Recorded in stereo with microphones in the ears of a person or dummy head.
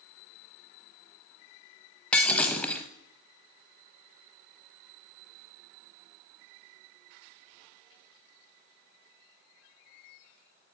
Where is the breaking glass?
5° left (ahead or behind), 1.0 m.